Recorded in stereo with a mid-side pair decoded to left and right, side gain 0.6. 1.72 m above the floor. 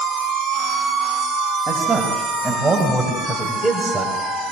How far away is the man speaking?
About 8.5 m.